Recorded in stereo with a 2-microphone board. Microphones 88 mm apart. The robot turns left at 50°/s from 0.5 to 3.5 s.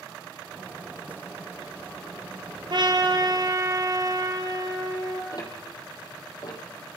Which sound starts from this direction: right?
A trumpet, at 2.7 s.